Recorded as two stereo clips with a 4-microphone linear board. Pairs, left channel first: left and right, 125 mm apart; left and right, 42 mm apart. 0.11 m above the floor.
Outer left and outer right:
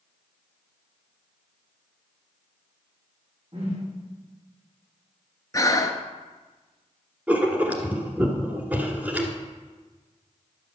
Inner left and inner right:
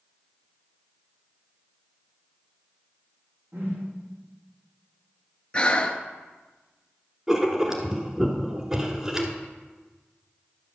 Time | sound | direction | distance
3.5 | a whoosh | 50° right (ahead or behind) | 5 m
5.5 | breathing | 30° left (ahead or behind) | 0.8 m
7.3 | writing | 10° right (ahead or behind) | 1.4 m